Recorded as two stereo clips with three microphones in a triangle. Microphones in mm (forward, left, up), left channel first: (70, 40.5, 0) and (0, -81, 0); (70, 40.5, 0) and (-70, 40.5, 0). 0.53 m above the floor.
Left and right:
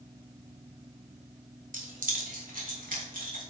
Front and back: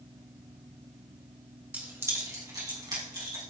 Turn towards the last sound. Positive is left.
turn(degrees=-120)